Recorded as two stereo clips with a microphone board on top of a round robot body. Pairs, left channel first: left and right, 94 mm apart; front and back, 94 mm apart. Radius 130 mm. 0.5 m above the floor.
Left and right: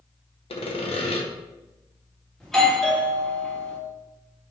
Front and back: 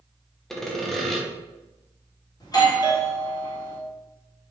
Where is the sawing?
85° left, 0.8 m.